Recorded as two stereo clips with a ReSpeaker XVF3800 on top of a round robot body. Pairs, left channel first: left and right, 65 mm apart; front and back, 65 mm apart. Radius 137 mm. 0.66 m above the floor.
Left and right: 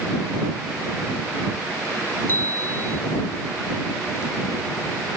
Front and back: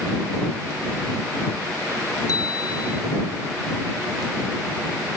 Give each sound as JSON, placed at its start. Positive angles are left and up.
{"t": 2.3, "sound": "a bicycle bell", "azimuth_deg": 30}